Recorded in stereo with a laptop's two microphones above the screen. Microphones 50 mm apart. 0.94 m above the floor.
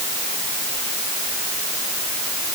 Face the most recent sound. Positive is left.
No sound to turn to.